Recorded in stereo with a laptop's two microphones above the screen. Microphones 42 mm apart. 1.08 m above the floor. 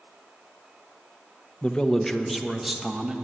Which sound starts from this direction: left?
A man speaking, at 1.6 s.